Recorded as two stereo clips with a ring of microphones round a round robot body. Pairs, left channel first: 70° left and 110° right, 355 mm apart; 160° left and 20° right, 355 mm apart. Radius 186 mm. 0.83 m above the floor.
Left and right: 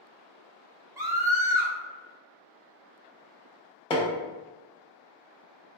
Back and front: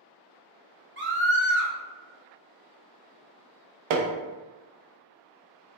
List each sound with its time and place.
1.0 s a scream: 40° right, 0.9 m
3.9 s hammering: 10° right, 0.7 m